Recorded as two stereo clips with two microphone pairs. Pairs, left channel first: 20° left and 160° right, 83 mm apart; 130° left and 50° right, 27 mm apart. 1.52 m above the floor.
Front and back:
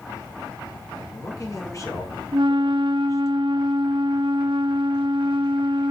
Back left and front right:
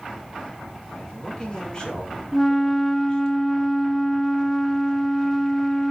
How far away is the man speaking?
About 5 m.